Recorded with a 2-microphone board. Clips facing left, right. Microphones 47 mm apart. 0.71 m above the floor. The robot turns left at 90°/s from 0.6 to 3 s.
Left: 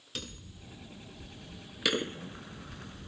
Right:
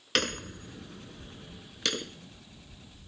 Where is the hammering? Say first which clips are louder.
Right 14 dB; 75° right; by 3.1 s 70° left.